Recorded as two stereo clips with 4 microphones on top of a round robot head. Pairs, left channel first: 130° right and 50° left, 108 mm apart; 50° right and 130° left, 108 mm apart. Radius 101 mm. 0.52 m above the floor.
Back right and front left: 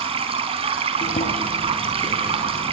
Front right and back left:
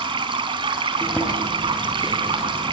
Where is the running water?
85° left, 4.5 m.